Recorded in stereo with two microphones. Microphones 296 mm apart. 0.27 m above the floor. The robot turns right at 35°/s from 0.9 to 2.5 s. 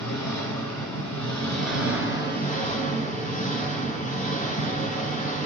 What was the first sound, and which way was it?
An engine running, 95° left.